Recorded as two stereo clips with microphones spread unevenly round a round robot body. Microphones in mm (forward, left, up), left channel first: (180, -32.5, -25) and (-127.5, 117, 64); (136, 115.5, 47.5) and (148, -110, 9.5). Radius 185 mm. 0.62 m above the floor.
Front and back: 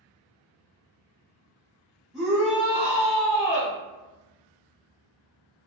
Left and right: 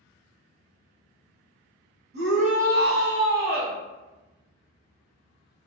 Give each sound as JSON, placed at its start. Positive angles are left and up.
{"t": 2.1, "sound": "a shout", "azimuth_deg": -105, "distance_m": 0.9}